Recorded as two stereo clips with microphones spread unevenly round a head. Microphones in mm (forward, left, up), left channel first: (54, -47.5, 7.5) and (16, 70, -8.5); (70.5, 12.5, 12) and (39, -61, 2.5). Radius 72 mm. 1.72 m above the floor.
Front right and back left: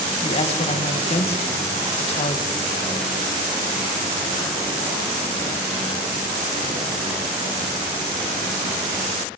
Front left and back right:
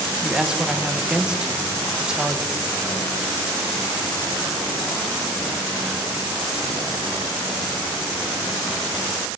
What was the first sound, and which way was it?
A woman speaking, 30° right.